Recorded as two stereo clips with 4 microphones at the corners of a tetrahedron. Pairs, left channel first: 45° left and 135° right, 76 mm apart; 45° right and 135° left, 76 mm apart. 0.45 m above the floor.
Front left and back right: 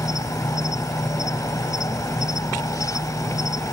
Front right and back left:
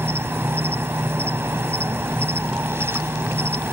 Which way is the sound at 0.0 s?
80° left.